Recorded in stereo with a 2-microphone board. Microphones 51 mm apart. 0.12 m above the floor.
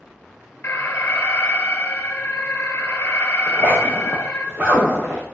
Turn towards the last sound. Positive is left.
turn(degrees=-25)  # may be behind; listen again after turning